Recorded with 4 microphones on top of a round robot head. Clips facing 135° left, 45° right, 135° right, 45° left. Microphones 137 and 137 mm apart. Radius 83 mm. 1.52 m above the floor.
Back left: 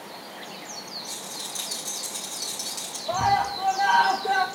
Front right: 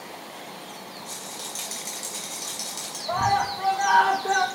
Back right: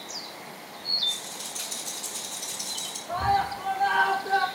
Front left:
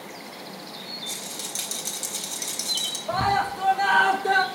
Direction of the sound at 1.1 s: 40° left.